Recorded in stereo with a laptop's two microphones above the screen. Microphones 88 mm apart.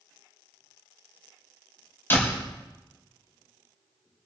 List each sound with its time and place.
2.1 s a door slam: 25° left (ahead or behind), 3.5 m